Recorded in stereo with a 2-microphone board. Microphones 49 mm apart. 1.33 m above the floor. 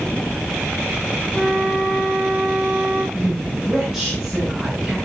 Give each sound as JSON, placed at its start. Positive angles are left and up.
{"t": 1.3, "sound": "a flute", "side_deg": -15, "distance_m": 4.5}
{"t": 3.1, "sound": "a woman speaking", "side_deg": -10, "distance_m": 8.5}